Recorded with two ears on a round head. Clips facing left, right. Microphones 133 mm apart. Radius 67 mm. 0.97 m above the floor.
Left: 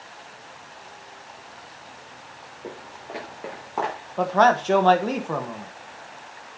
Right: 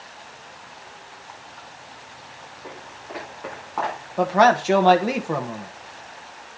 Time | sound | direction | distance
2.6 | footsteps | 40° left (ahead or behind) | 5.5 m
4.2 | a man speaking | 10° right (ahead or behind) | 1.1 m